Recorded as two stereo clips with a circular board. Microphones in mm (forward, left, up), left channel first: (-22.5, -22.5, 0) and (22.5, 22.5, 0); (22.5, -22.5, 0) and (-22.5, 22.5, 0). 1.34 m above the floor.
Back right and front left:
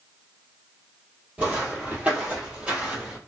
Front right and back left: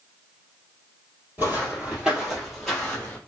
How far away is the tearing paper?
I don't hear tearing paper.